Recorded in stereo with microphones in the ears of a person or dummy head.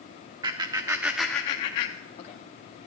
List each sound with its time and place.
0.4 s laughter: 20° right (ahead or behind), 0.8 m; by 2.4 s 40° left (ahead or behind), 0.8 m